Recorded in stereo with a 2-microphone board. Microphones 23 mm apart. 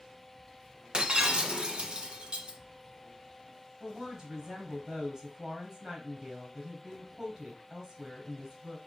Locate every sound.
0.9 s breaking glass: 45° right (ahead or behind), 1.2 m
3.8 s a woman speaking: 30° right (ahead or behind), 3 m